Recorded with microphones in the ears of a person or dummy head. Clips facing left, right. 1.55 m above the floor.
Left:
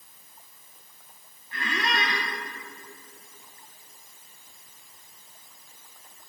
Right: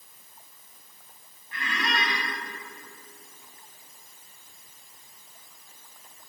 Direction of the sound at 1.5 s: 30° left (ahead or behind).